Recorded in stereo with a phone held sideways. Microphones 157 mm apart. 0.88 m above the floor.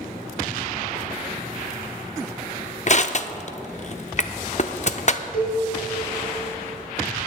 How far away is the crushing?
About 0.5 m.